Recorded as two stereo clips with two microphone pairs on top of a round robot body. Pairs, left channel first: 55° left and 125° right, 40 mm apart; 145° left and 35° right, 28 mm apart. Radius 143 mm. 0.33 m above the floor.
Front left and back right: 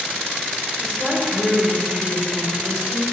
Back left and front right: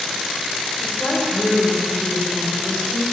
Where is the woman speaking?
140° left, 2.5 m.